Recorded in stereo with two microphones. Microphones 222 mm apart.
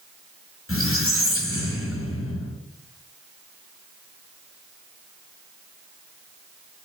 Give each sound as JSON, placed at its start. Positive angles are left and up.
{"t": 0.7, "sound": "a squeak", "side_deg": 70, "distance_m": 0.9}